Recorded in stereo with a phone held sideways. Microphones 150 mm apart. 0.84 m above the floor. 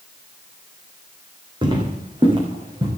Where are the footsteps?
30° right (ahead or behind), 3 m; by 2.9 s 35° right (ahead or behind), 4 m.